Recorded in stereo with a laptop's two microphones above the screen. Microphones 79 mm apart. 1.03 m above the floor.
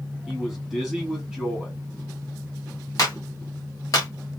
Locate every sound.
0.3 s a man speaking: 5° left (ahead or behind), 1.7 m
3.0 s a clap: 45° left (ahead or behind), 1.6 m